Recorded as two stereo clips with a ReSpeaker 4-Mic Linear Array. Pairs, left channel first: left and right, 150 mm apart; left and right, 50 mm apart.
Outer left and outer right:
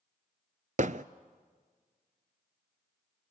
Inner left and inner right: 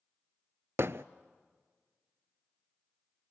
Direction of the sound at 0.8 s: 55° right (ahead or behind).